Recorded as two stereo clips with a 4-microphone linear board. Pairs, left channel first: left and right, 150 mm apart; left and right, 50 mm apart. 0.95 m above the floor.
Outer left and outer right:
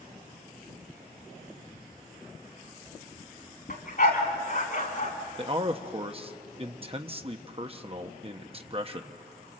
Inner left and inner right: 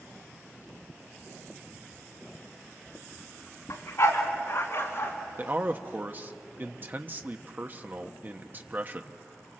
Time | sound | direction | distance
3.7 | a dog barking | 70° left (ahead or behind) | 3.5 m
5.4 | a man speaking | 35° right (ahead or behind) | 1.0 m